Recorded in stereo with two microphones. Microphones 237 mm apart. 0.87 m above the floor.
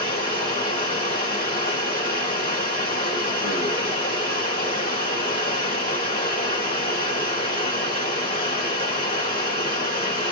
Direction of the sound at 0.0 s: 40° left (ahead or behind).